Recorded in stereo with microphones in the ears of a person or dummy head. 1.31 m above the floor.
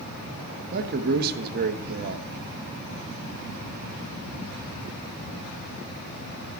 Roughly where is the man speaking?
Right.